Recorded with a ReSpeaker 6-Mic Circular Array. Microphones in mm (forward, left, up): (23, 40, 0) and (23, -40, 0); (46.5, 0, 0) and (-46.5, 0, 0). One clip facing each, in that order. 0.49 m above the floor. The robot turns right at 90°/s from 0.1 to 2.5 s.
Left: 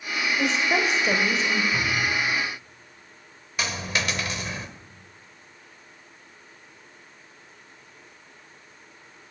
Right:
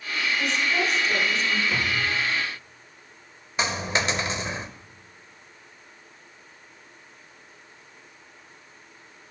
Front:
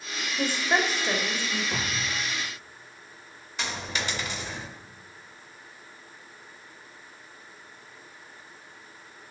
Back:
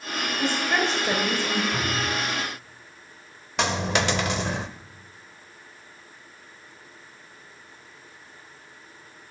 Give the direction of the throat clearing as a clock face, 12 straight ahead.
I don't hear throat clearing.